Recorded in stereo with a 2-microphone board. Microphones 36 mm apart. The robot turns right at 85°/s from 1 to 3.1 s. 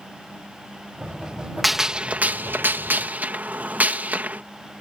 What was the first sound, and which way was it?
A gunshot, 175° right.